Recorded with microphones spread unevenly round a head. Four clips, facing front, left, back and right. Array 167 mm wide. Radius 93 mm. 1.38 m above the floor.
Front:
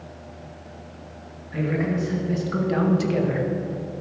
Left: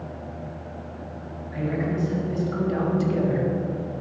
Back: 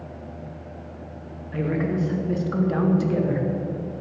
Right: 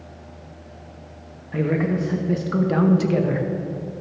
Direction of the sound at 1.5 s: 95° right.